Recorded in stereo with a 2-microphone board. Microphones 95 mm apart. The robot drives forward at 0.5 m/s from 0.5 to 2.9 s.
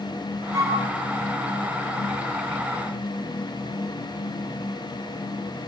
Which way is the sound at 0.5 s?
45° right (ahead or behind).